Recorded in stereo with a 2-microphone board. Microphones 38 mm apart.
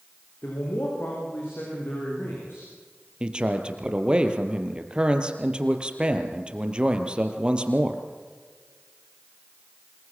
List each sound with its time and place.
0.4 s a man speaking: 75° left (ahead or behind), 8 m
3.2 s a man speaking: 25° right (ahead or behind), 3 m